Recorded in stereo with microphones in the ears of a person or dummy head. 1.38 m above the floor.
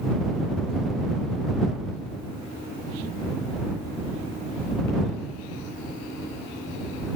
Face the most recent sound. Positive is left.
No sound to turn to.